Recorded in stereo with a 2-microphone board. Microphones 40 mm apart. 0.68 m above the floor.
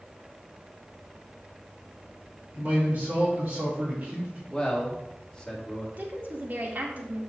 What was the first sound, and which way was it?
A man speaking, 40° right (ahead or behind).